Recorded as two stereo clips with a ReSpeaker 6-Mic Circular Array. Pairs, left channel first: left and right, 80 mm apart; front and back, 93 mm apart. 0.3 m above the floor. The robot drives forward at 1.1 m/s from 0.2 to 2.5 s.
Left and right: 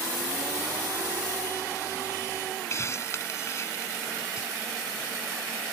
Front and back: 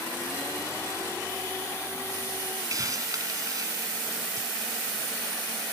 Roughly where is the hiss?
Behind left.